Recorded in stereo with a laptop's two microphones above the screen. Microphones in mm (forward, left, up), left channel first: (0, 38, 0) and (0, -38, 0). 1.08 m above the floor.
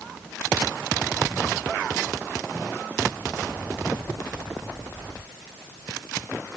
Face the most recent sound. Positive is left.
No sound to turn to.